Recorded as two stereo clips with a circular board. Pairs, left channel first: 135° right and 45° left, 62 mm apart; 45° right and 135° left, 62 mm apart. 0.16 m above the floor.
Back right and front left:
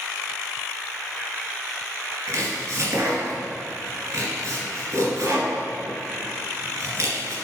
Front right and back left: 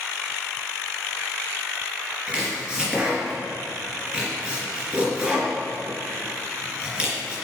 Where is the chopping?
70° left, 3 m.